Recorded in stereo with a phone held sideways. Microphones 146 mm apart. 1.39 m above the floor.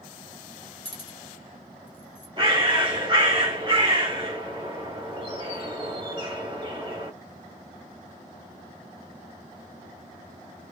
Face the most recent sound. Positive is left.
turn(degrees=-35)  # may be behind; listen again after turning